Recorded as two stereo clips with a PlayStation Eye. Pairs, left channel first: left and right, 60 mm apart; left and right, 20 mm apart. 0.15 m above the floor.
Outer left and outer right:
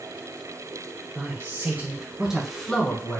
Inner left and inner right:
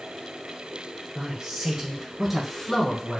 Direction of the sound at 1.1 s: 45° right (ahead or behind).